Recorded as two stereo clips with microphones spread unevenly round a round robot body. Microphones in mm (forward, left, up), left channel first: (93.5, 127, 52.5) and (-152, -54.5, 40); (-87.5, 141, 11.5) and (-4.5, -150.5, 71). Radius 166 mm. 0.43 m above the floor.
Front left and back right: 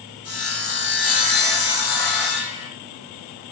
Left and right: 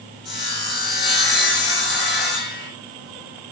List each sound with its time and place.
0.2 s sawing: 15° left, 7 m